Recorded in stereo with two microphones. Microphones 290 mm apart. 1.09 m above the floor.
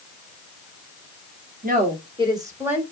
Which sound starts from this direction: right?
A woman speaking, at 1.6 s.